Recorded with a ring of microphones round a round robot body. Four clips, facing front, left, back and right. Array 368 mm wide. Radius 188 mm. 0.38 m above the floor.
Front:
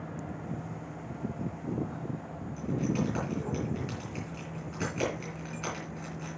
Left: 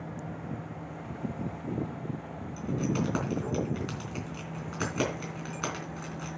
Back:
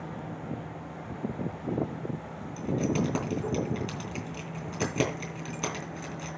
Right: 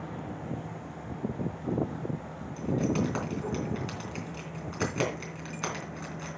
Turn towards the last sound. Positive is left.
turn(degrees=155)